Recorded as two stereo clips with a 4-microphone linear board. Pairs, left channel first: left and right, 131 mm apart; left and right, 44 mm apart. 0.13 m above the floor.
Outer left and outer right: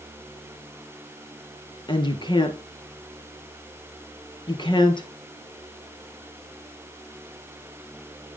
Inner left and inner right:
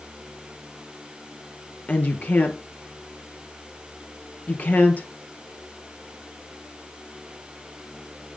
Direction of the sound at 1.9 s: 35° left (ahead or behind).